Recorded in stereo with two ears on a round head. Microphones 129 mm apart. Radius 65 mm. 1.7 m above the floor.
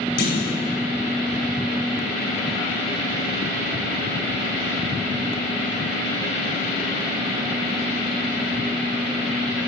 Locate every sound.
0.2 s a clunk: 70° left (ahead or behind), 5.5 m